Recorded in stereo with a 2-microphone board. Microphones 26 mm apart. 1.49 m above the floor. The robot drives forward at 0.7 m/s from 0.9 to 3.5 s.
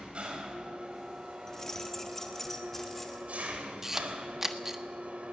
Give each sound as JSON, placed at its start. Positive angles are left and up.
{"t": 0.0, "sound": "an engine running", "side_deg": -45, "distance_m": 4.5}
{"t": 1.5, "sound": "keys jangling", "side_deg": 20, "distance_m": 1.6}
{"t": 3.8, "sound": "a camera shutter", "side_deg": -15, "distance_m": 1.4}